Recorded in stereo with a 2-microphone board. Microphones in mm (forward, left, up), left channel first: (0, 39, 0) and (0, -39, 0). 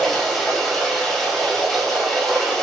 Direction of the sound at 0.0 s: 5° left (ahead or behind).